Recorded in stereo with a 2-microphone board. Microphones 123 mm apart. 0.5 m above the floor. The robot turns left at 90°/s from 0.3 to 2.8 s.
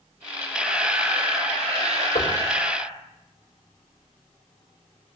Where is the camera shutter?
20° left, 5 m; by 2.9 s 175° left, 5 m.